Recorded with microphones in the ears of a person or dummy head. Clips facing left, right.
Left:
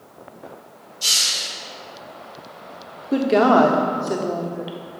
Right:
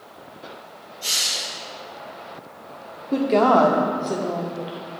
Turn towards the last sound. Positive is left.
turn(degrees=10)  # may be behind; listen again after turning